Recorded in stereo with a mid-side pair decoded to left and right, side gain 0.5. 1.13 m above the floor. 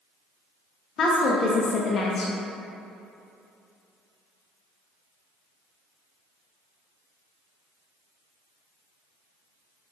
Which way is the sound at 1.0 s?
55° left.